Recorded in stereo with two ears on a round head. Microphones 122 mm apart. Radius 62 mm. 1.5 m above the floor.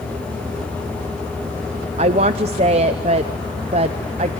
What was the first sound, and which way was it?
A woman speaking, 45° right (ahead or behind).